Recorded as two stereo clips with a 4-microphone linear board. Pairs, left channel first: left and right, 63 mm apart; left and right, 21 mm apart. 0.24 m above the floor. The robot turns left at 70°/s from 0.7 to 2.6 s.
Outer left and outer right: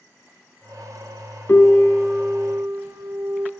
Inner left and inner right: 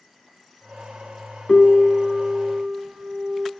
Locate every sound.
1.5 s a piano: 35° left, 0.6 m; by 3.5 s 40° right, 0.6 m